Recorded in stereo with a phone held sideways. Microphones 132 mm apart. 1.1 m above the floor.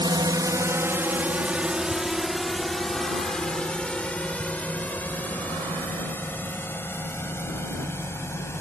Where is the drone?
35° right (ahead or behind); by 8.6 s 20° left (ahead or behind).